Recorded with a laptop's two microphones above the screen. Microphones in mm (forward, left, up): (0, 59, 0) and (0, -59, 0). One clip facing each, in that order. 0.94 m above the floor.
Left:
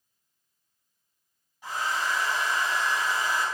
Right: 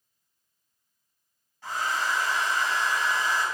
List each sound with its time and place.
1.6 s a hair dryer: 15° left (ahead or behind), 3 m